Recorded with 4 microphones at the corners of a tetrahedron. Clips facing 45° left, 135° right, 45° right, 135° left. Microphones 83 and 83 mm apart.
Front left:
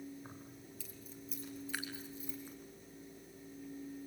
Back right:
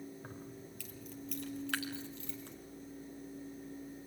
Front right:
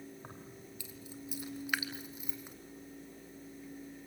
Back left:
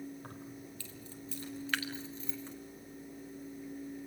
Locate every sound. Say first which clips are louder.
0.2 s keys jangling: back right 4 dB, back left 3 dB; 120° right, 2.5 m
1.7 s dripping: back right 4 dB, even; 120° right, 2.5 m